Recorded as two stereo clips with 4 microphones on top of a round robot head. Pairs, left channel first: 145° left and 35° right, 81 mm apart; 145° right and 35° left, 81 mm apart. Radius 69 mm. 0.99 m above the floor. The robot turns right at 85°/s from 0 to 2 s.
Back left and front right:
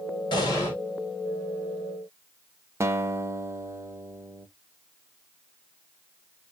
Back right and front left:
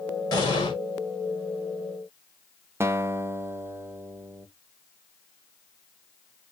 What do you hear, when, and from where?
0.3 s an explosion: 175° left, 3.5 m; by 0.8 s 150° right, 3.5 m
2.8 s a guitar: 5° right, 0.7 m